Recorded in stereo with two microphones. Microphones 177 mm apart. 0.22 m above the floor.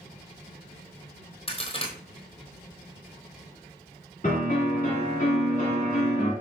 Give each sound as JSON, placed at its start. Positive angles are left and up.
{"t": 1.5, "sound": "a crack", "side_deg": 35, "distance_m": 1.2}
{"t": 4.2, "sound": "a piano", "side_deg": 50, "distance_m": 2.5}